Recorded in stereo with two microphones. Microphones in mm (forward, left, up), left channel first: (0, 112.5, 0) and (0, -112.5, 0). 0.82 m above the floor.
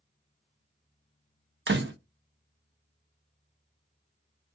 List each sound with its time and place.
1.7 s a door slam: 55° right (ahead or behind), 0.6 m